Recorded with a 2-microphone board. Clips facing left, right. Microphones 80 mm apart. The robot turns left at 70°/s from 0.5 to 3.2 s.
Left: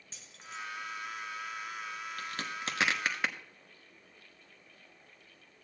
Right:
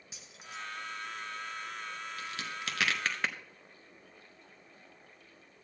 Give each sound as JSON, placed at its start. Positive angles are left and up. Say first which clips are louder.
{"t": 0.1, "sound": "keys jangling", "louder": "left 1 dB", "side_deg": -10, "distance_m": 1.1}
{"t": 2.2, "sound": "a crack", "louder": "left 3 dB", "side_deg": 55, "distance_m": 1.0}